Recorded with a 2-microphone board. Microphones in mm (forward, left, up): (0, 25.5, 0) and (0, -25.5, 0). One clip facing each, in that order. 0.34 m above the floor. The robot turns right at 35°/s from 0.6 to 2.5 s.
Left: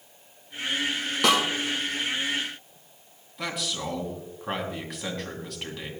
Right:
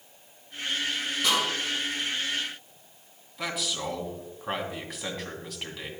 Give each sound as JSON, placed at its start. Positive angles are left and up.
{"t": 1.2, "sound": "a snare drum", "side_deg": 85, "distance_m": 4.0}
{"t": 3.4, "sound": "a man speaking", "side_deg": 0, "distance_m": 2.5}